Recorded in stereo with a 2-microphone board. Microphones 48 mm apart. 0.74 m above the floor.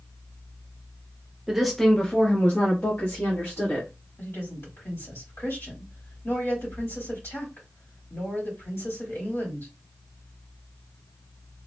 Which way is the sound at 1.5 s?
10° right (ahead or behind).